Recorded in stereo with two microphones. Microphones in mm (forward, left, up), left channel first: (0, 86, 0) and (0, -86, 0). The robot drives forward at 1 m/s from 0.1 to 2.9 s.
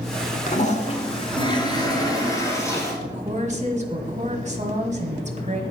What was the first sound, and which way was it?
A toilet flushing, 50° left (ahead or behind).